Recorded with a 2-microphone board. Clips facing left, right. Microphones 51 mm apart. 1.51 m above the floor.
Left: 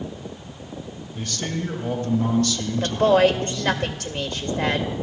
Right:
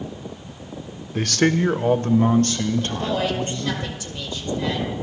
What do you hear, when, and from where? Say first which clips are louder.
1.1 s a man speaking: right 10 dB; 80° right, 0.7 m; by 3.8 s 35° right (ahead or behind), 3 m
2.8 s a woman speaking: left 7 dB; 70° left (ahead or behind), 2 m